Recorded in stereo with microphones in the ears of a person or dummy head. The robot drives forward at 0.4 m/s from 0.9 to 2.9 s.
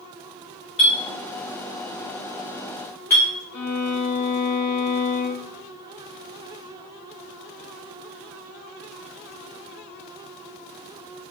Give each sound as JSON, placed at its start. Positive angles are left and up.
{"t": 0.8, "sound": "a clink", "side_deg": 20, "distance_m": 0.8}
{"t": 3.5, "sound": "a violin", "side_deg": 80, "distance_m": 0.8}